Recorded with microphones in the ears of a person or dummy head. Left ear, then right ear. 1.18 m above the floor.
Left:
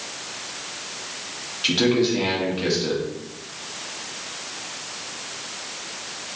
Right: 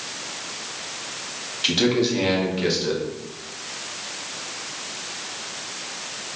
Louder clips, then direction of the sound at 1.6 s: Even; 10° right (ahead or behind).